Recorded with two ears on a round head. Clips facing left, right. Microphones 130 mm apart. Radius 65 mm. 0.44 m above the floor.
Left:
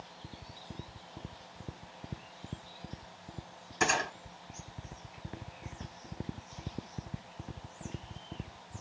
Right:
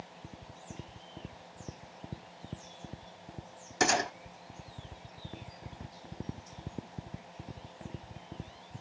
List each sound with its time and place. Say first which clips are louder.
3.8 s a gunshot: right 3 dB; 75° right (ahead or behind), 3.5 m